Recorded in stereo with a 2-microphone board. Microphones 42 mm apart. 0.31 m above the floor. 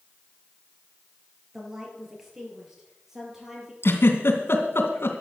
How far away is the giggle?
About 2.5 m.